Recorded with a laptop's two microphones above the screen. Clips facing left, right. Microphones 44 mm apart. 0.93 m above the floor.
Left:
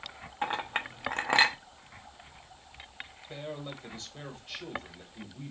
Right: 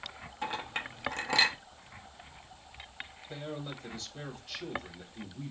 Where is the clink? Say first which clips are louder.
Left 4 dB; 30° left (ahead or behind), 0.7 m.